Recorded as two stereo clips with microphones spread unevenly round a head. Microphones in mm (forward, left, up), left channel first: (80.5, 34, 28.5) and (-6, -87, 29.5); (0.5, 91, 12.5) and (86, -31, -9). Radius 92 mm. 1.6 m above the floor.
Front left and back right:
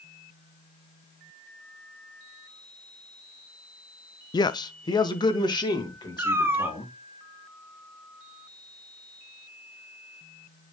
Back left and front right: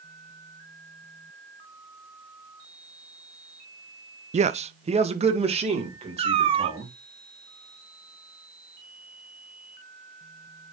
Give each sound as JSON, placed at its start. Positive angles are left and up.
{"t": 4.3, "sound": "a man speaking", "azimuth_deg": -10, "distance_m": 0.6}
{"t": 6.2, "sound": "a cat meowing", "azimuth_deg": -70, "distance_m": 0.9}